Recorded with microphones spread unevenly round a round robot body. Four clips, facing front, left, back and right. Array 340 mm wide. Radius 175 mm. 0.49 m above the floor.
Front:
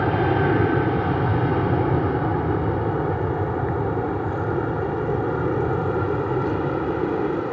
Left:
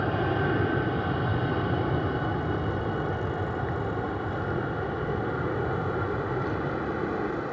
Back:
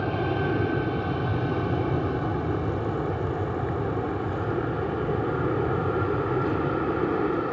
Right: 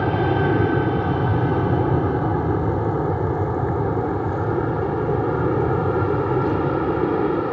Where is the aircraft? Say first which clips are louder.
Right 7 dB, front 6 dB; 60° right; by 7.5 s 85° right.